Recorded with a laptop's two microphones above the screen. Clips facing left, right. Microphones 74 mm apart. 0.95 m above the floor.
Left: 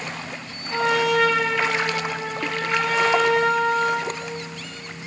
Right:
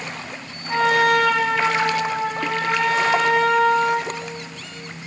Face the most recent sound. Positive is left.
turn(degrees=-60)  # may be behind; listen again after turning